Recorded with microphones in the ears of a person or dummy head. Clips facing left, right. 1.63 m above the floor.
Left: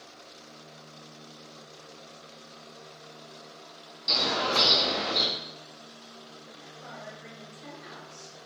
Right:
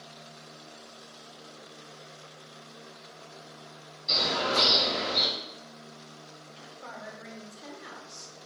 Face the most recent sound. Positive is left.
turn(degrees=-55)  # may be behind; listen again after turning